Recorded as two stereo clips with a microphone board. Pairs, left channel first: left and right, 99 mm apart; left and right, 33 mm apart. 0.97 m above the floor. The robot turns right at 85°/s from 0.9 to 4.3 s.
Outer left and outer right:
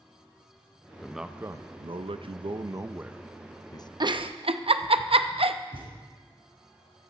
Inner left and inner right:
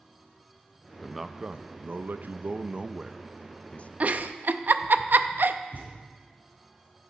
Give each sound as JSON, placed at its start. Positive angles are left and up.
{"t": 1.0, "sound": "a man speaking", "azimuth_deg": 170, "distance_m": 0.6}
{"t": 4.0, "sound": "a giggle", "side_deg": -45, "distance_m": 0.6}
{"t": 5.7, "sound": "a thud", "side_deg": -60, "distance_m": 3.5}